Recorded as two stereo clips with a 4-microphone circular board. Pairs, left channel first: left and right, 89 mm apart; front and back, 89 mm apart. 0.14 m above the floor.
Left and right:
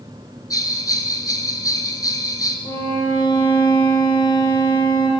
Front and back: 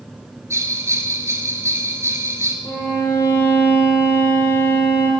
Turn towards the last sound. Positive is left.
turn(degrees=50)